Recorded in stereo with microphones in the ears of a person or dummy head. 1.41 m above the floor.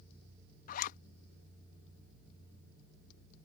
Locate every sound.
0.7 s a zipper: 50° left (ahead or behind)